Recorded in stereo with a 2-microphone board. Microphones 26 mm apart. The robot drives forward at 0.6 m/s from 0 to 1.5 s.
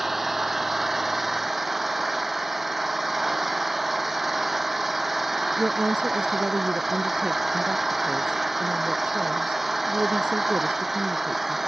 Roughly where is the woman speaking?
Right.